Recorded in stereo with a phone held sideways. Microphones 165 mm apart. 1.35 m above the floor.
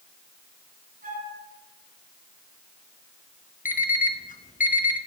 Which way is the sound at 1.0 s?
60° right (ahead or behind).